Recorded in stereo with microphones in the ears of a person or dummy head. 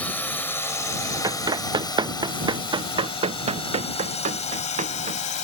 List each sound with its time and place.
0.0 s a drone: 15° left (ahead or behind); by 5.5 s 45° left (ahead or behind)
1.2 s running footsteps: 15° right (ahead or behind); by 5.2 s 35° right (ahead or behind)